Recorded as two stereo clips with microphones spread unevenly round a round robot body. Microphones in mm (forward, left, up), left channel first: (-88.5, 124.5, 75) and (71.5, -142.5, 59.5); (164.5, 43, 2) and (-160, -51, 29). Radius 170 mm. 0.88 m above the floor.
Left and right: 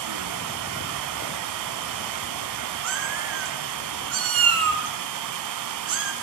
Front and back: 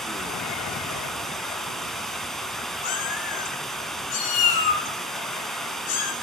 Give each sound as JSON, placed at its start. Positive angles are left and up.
{"t": 0.0, "sound": "running water", "azimuth_deg": -75, "distance_m": 1.1}
{"t": 2.8, "sound": "a cat meowing", "azimuth_deg": -10, "distance_m": 3.5}